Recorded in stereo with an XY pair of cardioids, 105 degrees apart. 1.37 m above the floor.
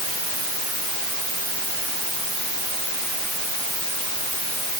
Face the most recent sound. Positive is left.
No sound to turn to.